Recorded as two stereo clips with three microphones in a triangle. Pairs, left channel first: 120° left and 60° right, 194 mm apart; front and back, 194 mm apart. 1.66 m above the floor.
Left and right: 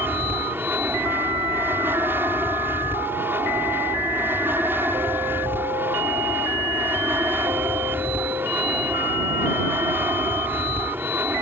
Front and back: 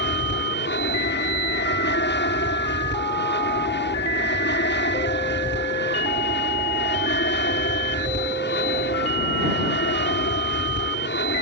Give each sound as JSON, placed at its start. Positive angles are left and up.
{"t": 0.0, "sound": "an aircraft", "azimuth_deg": 20}